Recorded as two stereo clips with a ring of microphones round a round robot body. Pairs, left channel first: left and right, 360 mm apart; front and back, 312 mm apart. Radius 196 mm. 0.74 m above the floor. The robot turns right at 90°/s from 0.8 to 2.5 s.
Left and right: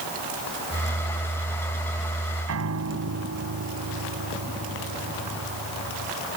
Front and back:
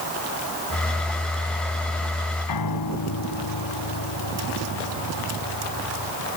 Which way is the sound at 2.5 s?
40° right.